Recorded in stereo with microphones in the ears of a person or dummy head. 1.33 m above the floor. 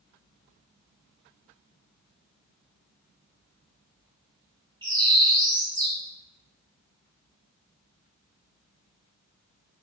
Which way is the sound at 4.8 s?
20° right (ahead or behind).